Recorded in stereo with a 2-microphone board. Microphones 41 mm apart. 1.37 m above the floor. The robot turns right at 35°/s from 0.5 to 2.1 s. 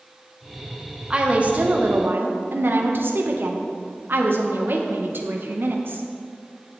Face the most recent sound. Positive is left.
turn(degrees=-125)